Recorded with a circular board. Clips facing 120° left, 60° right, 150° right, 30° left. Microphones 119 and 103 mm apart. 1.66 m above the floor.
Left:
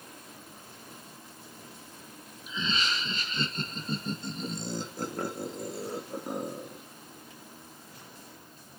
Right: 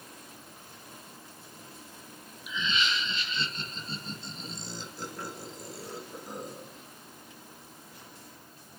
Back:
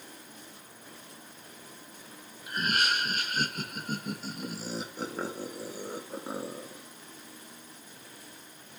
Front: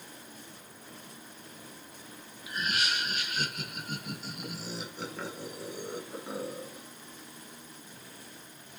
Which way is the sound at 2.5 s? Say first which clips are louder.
Right 1 dB, back 3 dB; 175° left.